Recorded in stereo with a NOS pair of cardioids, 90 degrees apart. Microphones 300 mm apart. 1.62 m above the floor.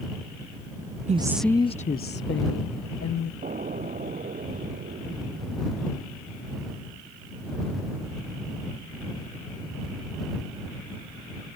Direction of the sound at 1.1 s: 25° right.